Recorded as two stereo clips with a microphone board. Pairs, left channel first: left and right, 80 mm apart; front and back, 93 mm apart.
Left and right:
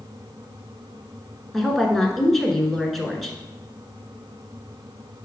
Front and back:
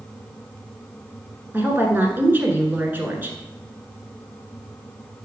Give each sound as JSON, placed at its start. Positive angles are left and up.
{"t": 1.5, "sound": "a woman speaking", "azimuth_deg": 175, "distance_m": 1.2}